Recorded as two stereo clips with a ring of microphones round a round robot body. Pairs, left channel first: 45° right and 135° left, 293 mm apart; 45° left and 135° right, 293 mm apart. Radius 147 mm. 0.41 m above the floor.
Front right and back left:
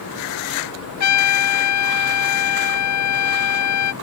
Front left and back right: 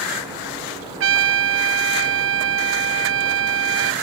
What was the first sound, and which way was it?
A trumpet, 85° right.